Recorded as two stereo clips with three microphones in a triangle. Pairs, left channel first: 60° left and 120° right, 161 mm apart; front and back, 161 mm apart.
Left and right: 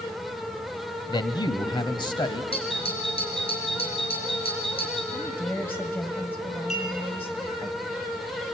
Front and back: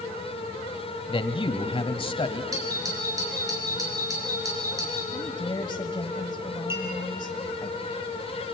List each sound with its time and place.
1.1 s a man speaking: 20° left, 1.3 m
2.5 s a doorbell: 110° left, 5 m
5.1 s a woman speaking: straight ahead, 1.3 m
6.7 s a clink: 105° left, 5 m